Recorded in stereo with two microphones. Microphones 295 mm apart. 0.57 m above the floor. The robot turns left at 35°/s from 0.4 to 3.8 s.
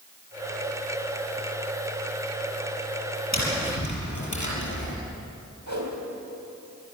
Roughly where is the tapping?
Left.